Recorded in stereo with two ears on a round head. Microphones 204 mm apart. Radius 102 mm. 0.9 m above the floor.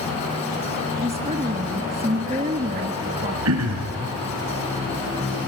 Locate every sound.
1.0 s a woman speaking: 30° right (ahead or behind), 1.3 m
3.5 s throat clearing: 75° right (ahead or behind), 3.5 m